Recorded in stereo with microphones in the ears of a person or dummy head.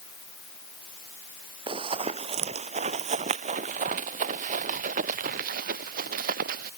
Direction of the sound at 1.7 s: 25° right (ahead or behind).